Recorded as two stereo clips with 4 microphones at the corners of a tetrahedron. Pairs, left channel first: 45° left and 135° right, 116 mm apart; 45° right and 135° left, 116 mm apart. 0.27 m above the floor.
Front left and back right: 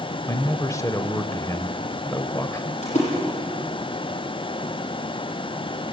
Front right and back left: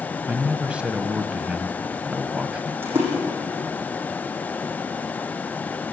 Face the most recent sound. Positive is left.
turn(degrees=65)